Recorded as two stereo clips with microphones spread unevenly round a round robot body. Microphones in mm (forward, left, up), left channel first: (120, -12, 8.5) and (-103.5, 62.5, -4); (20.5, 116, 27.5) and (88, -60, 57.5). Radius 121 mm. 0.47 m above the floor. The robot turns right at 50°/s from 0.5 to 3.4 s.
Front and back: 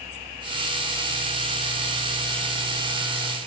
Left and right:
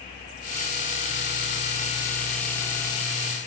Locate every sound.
Only background noise.